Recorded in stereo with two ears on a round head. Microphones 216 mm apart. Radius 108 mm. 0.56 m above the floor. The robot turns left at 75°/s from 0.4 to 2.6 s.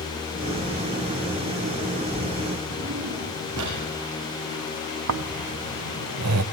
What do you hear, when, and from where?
2.7 s a drawer: 65° right (ahead or behind), 7.5 m
5.1 s snoring: 70° right (ahead or behind), 0.9 m